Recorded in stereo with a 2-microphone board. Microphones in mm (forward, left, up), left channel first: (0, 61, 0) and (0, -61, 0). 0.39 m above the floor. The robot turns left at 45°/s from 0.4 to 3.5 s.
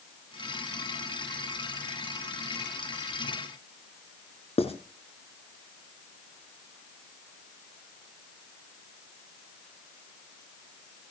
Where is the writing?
55° left (ahead or behind), 2 m.